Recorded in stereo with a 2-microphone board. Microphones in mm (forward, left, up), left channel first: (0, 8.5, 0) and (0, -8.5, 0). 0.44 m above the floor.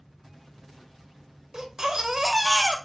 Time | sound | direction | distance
1.5 | a baby crying | 30° right (ahead or behind) | 0.8 m